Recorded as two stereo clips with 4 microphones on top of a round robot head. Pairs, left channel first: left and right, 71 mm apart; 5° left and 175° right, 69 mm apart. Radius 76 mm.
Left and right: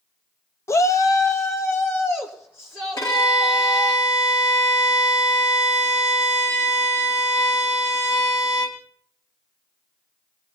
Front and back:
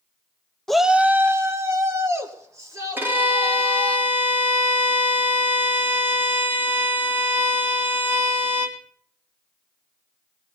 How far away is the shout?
About 0.7 m.